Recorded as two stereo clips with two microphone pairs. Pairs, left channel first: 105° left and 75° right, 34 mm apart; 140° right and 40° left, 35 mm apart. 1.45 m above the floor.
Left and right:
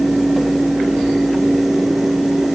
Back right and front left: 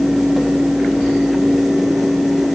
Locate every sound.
Only background noise.